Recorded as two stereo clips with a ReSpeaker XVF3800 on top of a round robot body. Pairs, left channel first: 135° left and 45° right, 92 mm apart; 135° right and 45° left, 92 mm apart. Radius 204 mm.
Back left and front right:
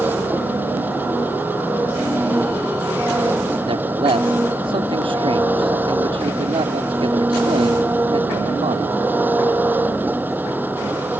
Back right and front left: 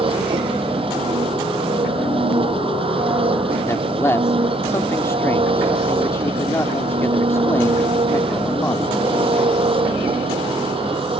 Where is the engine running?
25° left.